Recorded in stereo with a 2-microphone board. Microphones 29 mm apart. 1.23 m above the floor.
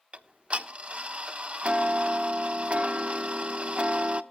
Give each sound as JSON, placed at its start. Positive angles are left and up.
{"t": 0.1, "sound": "ticking", "side_deg": -45, "distance_m": 1.0}